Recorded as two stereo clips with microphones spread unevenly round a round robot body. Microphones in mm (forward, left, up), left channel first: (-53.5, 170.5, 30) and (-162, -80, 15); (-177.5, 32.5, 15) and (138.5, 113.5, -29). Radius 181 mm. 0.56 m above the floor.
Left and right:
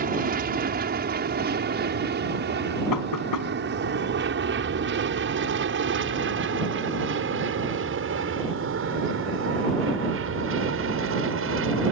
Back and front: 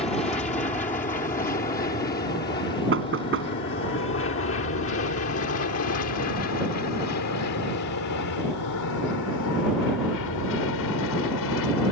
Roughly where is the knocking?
Ahead left.